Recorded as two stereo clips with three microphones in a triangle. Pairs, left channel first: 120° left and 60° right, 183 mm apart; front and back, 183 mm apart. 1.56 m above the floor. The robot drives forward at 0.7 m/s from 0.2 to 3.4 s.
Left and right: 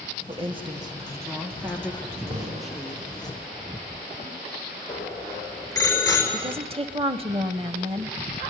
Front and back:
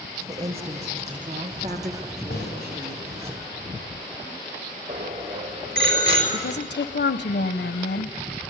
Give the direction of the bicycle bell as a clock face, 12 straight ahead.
6 o'clock.